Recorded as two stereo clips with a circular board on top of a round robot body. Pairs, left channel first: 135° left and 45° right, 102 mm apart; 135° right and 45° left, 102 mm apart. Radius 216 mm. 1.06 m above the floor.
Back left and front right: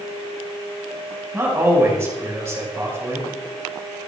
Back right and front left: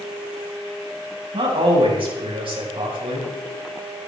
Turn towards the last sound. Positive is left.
turn(degrees=20)